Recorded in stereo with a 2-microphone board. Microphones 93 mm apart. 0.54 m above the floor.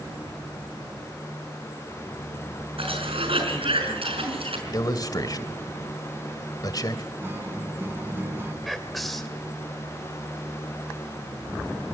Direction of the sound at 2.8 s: 80° right.